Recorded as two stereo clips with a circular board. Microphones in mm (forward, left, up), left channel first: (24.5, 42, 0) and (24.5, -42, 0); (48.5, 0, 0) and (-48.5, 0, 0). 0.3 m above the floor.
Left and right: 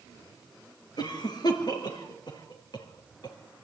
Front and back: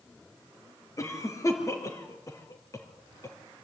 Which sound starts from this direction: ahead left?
A cough, at 1.0 s.